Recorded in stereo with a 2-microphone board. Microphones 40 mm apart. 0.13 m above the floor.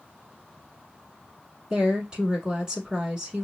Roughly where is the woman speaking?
Right.